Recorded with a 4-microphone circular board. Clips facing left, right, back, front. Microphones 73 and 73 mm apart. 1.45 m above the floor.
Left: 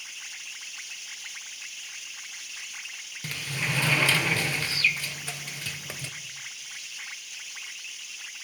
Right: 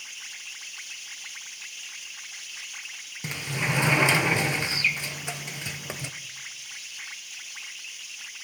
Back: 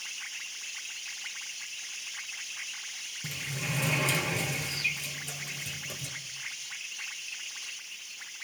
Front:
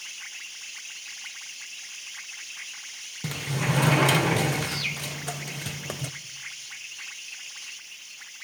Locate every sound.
3.2 s a sliding door: 20° right, 0.9 m